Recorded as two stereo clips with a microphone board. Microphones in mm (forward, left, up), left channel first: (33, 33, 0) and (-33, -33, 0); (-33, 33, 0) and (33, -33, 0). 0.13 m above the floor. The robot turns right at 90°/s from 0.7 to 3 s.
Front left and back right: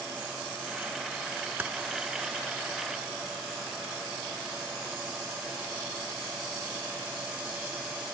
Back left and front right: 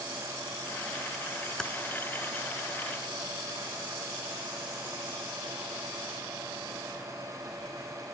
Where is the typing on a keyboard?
160° right, 0.5 m; by 1.7 s 150° right, 0.5 m.